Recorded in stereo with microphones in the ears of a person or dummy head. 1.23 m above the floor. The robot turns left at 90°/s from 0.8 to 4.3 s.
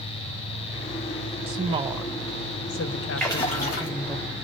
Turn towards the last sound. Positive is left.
turn(degrees=75)